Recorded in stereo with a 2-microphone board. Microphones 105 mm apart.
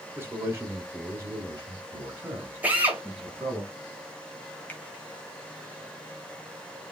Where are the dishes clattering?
No dishes clattering in this recording.